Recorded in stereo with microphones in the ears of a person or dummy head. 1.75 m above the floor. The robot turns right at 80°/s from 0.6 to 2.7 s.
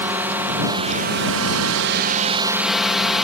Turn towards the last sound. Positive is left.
turn(degrees=5)